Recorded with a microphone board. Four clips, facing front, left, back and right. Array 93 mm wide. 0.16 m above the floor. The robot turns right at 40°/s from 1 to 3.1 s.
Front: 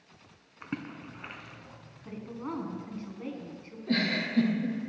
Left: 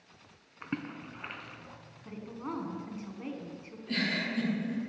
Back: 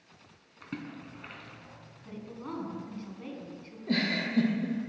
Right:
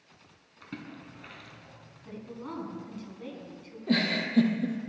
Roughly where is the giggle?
Right.